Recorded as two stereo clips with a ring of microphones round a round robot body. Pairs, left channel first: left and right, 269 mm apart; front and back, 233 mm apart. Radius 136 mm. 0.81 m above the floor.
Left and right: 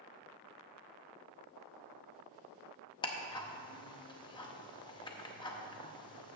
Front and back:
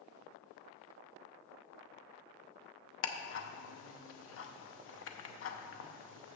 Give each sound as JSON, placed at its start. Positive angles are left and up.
{"t": 3.0, "sound": "ticking", "azimuth_deg": 20, "distance_m": 0.9}